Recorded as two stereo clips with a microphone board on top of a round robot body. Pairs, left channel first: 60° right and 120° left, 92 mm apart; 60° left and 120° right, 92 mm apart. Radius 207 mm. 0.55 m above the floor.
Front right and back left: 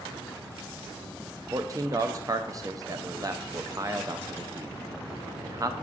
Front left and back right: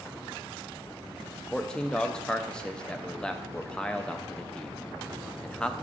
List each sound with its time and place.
1.5 s a man speaking: 135° left, 0.6 m